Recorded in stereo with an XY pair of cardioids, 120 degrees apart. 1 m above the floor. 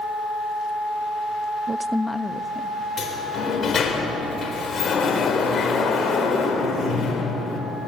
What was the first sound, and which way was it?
A woman speaking, 30° right.